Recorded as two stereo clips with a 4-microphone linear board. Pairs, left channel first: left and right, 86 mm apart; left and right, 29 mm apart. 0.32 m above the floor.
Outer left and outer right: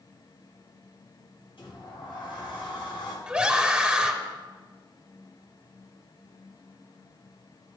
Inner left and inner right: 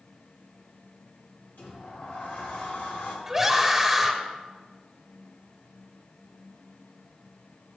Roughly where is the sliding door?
Left.